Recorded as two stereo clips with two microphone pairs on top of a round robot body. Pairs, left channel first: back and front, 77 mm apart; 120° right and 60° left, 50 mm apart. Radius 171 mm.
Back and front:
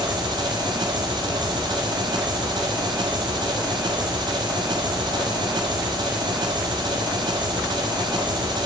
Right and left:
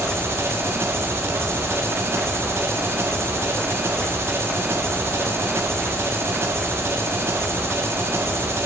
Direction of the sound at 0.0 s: 25° left.